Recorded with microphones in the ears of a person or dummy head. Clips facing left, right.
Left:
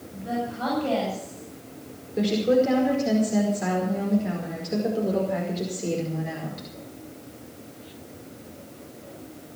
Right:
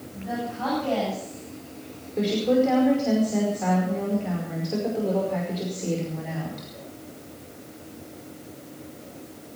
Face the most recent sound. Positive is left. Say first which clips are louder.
# even
turn(degrees=15)  # may be behind; listen again after turning